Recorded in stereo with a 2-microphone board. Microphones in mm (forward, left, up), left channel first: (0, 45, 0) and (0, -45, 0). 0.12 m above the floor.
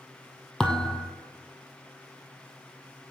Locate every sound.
0.6 s a thud: 10° left (ahead or behind), 1.3 m